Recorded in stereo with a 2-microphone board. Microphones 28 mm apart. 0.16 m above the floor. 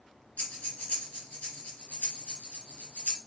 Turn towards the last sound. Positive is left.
turn(degrees=60)  # may be behind; listen again after turning